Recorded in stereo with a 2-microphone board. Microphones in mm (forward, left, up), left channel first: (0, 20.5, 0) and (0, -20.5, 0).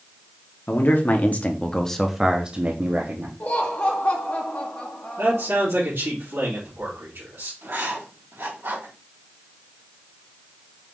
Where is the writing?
70° right (ahead or behind), 3 m.